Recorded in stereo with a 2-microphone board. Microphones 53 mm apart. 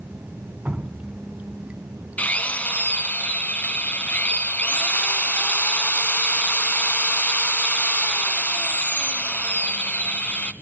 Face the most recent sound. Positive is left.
turn(degrees=30)  # may be behind; listen again after turning